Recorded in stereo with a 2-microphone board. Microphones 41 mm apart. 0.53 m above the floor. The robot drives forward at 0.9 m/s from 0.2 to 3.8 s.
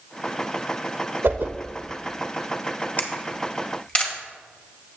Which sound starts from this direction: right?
A whoosh, at 1.2 s.